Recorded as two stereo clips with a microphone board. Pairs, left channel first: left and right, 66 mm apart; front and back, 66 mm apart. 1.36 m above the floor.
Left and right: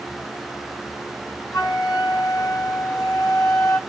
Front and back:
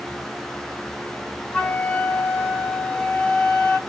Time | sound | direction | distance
1.5 | a flute | 70° left | 1.0 m